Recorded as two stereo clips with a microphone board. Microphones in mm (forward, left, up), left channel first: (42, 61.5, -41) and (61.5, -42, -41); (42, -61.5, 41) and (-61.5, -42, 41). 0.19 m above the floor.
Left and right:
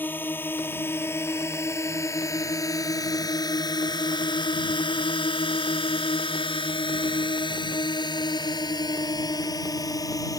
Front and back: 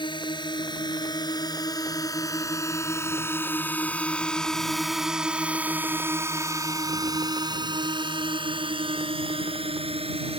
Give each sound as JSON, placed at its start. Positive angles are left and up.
{"t": 0.0, "sound": "a drone", "azimuth_deg": 30}